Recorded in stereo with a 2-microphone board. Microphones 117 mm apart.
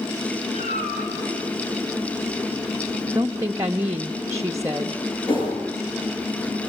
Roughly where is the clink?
I don't hear a clink.